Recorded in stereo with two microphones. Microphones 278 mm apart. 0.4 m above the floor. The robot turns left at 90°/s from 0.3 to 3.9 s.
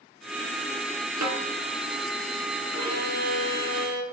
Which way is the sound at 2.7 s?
60° right.